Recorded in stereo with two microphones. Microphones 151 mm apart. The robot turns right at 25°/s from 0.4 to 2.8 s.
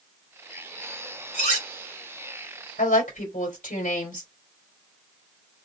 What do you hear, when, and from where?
1.3 s cutlery clinking: 55° left (ahead or behind), 2.0 m; by 1.7 s 65° left (ahead or behind), 2.0 m
2.8 s a woman speaking: 65° left (ahead or behind), 3 m